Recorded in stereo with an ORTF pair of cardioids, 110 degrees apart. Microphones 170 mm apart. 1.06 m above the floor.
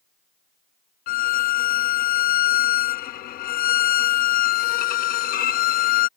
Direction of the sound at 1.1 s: 60° left.